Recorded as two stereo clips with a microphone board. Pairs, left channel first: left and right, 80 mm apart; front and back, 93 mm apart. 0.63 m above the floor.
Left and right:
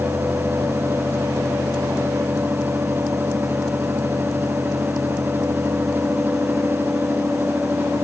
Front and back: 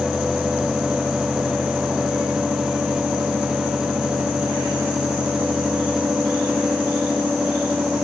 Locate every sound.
Only background noise.